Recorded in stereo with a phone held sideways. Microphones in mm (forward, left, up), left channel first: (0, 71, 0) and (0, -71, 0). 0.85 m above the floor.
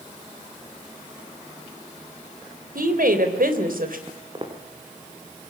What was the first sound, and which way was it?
A woman speaking, 80° right.